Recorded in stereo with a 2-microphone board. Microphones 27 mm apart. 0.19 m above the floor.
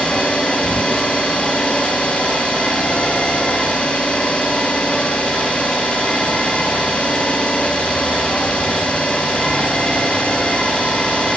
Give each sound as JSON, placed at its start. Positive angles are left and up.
{"t": 0.0, "sound": "an engine running", "side_deg": 50, "distance_m": 9.5}